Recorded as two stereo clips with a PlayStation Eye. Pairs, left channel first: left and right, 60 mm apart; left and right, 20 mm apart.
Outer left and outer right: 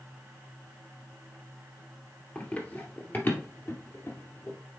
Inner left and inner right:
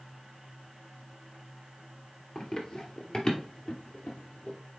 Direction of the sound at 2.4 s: 20° left (ahead or behind).